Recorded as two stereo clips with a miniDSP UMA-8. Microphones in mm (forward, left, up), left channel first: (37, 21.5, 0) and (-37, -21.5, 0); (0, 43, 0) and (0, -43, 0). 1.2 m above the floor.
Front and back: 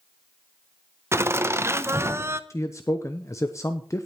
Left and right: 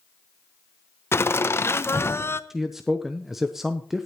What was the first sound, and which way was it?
Laughter, 150° left.